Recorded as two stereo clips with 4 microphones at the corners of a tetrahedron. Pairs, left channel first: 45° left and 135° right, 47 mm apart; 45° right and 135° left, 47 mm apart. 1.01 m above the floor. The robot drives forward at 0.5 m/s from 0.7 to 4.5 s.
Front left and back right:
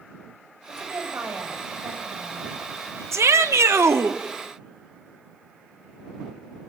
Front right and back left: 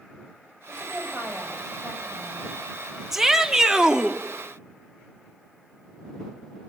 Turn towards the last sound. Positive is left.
turn(degrees=-150)